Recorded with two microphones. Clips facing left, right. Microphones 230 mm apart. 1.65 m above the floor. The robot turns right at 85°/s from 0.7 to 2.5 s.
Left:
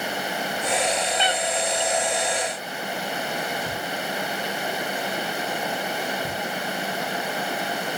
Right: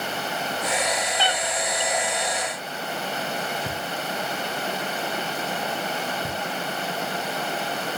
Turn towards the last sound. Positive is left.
turn(degrees=-15)  # may be behind; listen again after turning